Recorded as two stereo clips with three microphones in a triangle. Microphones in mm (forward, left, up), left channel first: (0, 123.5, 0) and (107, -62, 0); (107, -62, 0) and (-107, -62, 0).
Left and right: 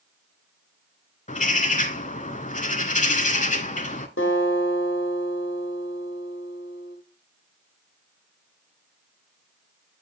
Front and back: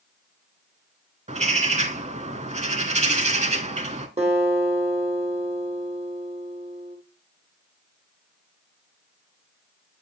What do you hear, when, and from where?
1.3 s a bird: 145° left, 0.5 m
4.2 s a guitar: 120° left, 2 m